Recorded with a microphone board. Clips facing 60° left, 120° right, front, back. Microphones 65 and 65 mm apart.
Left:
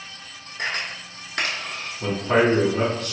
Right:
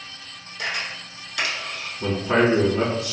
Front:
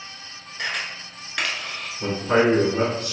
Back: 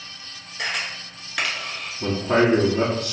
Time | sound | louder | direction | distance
0.6 | a camera shutter | left 1 dB, back 1 dB | 95° left | 0.8 m
2.0 | a man speaking | even, even | 40° right | 1.7 m